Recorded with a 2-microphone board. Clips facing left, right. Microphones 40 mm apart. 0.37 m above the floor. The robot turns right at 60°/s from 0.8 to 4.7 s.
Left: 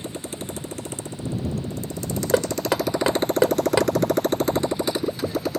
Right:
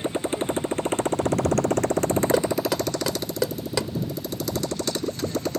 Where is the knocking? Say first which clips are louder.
Left 1 dB; 20° left (ahead or behind); by 3.9 s 25° left (ahead or behind).